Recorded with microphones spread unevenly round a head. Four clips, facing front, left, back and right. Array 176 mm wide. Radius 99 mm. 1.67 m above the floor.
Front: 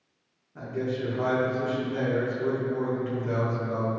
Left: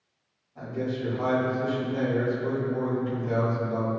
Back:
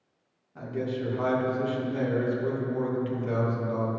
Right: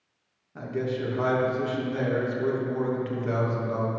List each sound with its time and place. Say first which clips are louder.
0.6 s a man speaking: right 1 dB, front 1 dB; 80° right, 3 m